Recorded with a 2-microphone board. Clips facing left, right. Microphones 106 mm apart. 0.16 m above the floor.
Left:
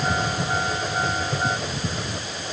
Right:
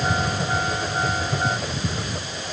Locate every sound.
Only background noise.